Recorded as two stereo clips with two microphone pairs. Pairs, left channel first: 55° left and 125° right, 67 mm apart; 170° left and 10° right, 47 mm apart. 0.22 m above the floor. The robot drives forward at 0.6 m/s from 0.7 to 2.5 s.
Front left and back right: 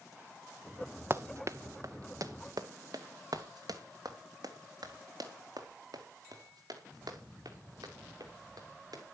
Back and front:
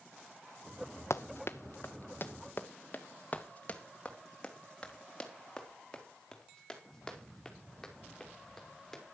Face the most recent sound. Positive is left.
turn(degrees=-105)